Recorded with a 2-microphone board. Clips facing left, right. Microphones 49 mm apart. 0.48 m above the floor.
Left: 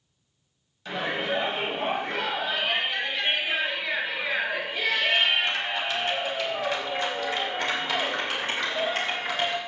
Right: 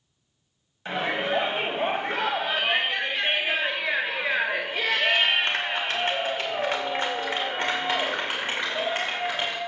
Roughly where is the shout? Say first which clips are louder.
Right 2 dB; right.